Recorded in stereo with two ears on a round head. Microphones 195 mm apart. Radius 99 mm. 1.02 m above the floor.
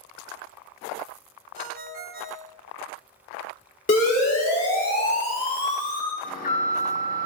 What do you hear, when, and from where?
1.6 s a ringtone: 40° right (ahead or behind), 1.3 m
3.9 s a siren: 35° left (ahead or behind), 6 m; by 6.1 s 20° left (ahead or behind), 7 m
6.2 s an alarm: 35° left (ahead or behind), 4 m